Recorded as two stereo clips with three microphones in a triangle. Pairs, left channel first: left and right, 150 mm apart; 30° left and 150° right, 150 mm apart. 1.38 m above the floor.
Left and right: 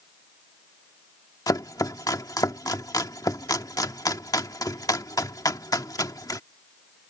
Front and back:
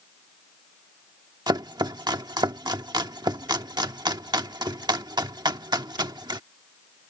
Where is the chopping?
155° left.